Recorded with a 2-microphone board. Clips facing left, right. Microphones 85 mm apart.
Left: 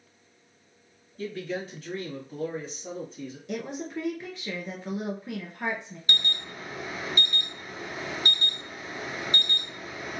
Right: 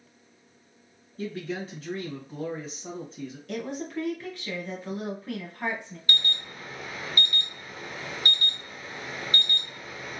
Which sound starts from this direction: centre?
A woman speaking, at 3.5 s.